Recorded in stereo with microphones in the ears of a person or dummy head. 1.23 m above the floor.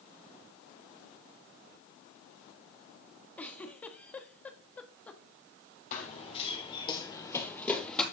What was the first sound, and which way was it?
A giggle, 10° left (ahead or behind).